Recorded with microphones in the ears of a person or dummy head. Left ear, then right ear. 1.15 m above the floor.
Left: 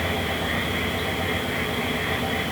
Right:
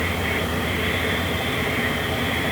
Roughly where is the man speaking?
I don't hear a man speaking.